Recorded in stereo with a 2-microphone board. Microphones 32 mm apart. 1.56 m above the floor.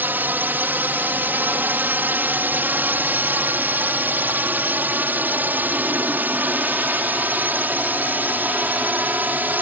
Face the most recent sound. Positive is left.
turn(degrees=-60)  # may be behind; listen again after turning